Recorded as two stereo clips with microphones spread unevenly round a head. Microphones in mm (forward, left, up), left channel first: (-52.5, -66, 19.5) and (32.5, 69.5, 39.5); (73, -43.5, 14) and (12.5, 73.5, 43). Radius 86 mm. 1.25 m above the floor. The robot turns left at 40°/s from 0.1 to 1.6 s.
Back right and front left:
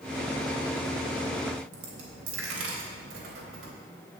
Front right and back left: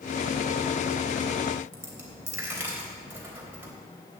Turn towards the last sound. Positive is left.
turn(degrees=45)